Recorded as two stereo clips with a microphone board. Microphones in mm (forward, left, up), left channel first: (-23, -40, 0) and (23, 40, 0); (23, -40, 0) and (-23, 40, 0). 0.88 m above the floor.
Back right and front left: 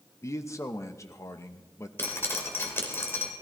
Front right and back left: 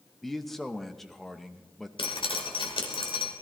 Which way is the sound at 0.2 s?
145° right.